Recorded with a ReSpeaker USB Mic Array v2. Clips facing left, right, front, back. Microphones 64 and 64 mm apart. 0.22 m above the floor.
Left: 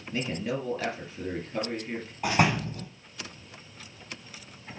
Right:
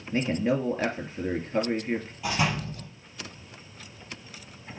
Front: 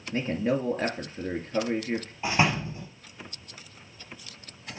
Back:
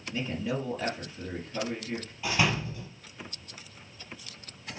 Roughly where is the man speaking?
Ahead right.